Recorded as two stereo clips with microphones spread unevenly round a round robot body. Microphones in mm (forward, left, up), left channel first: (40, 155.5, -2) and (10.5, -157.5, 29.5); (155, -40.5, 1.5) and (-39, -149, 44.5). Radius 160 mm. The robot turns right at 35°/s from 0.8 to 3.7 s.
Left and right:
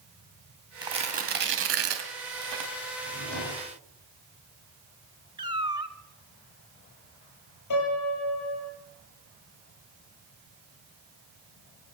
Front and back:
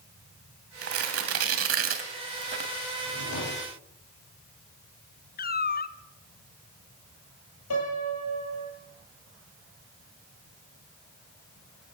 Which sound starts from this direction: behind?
Tearing paper, at 0.8 s.